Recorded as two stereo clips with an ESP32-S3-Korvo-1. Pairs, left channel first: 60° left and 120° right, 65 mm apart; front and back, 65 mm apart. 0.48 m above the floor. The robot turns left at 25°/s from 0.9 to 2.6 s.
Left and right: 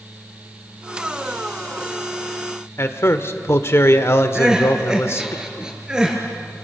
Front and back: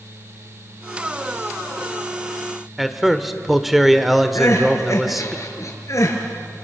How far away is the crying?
About 3 m.